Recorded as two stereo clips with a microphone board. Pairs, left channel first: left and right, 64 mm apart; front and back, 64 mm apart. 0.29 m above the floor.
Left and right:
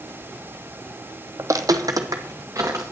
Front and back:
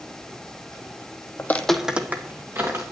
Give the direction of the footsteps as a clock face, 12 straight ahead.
2 o'clock.